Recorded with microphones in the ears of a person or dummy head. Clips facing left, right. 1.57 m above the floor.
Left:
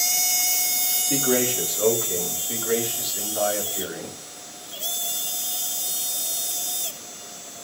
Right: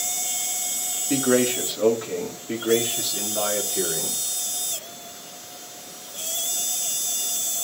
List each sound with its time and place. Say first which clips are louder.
1.1 s a man speaking: right 3 dB; 20° right (ahead or behind), 4.5 m; by 4.2 s 35° right (ahead or behind), 5.5 m